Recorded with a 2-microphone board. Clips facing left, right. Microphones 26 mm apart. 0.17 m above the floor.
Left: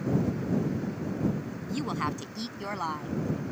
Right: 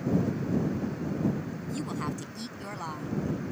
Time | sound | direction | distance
1.7 | a woman speaking | 25° left (ahead or behind) | ?